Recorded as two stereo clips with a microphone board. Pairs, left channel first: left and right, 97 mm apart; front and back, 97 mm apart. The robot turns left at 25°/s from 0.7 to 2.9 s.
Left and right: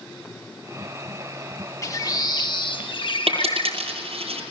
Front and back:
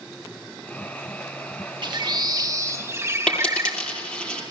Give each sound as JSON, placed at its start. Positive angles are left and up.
{"t": 1.8, "sound": "a bird", "azimuth_deg": 145, "distance_m": 1.5}
{"t": 3.3, "sound": "a dropped coin", "azimuth_deg": -80, "distance_m": 9.0}